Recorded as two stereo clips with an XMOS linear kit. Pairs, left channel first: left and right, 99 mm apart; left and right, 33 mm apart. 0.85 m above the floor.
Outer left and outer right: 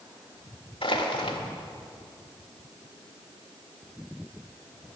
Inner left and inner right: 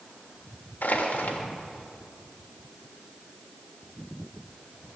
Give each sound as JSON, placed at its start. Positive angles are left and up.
{"t": 0.8, "sound": "crushing", "side_deg": 70, "distance_m": 1.5}